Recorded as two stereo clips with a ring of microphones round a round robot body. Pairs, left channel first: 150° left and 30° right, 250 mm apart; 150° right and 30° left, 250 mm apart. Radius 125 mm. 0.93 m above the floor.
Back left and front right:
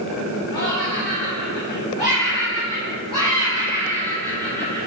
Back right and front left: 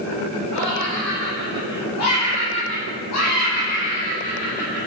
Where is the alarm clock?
I don't hear an alarm clock.